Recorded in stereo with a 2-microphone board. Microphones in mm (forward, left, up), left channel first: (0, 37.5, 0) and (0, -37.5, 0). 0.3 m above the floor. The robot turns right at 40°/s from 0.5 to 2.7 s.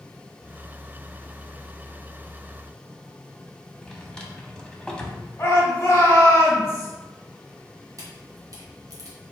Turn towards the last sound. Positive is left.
turn(degrees=-50)  # may be behind; listen again after turning